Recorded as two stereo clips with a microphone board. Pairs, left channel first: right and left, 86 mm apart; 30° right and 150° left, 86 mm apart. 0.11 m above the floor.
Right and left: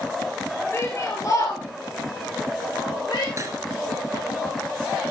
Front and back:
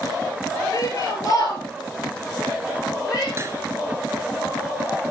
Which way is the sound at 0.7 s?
45° right.